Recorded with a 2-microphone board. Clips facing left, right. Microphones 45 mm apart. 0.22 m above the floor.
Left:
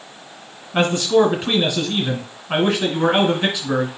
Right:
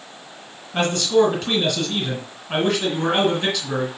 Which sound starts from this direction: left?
A man speaking, at 0.7 s.